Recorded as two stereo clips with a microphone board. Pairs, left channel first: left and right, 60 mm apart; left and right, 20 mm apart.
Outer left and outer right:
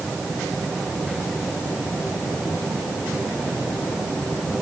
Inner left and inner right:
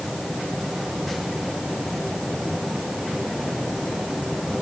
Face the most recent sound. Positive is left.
No sound to turn to.